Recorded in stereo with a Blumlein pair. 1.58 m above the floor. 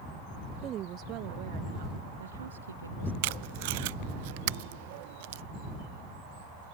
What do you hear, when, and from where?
0.6 s a woman speaking: 30° right; by 3.1 s 75° right
3.2 s tape being pulled: 50° right